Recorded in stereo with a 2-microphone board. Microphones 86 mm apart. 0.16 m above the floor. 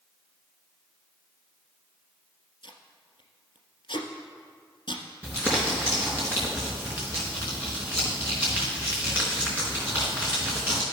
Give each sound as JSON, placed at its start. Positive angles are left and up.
{"t": 2.6, "sound": "tape being pulled", "side_deg": 70, "distance_m": 1.4}
{"t": 5.2, "sound": "crumpling", "side_deg": -15, "distance_m": 4.0}